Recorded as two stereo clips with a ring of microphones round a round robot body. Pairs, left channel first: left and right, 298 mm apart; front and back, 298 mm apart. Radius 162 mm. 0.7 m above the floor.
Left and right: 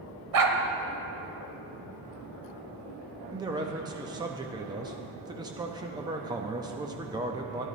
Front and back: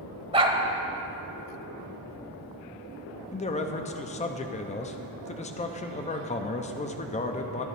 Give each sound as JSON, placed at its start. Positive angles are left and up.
{"t": 0.3, "sound": "a dog barking", "azimuth_deg": -105, "distance_m": 1.1}
{"t": 3.3, "sound": "a man speaking", "azimuth_deg": -30, "distance_m": 0.6}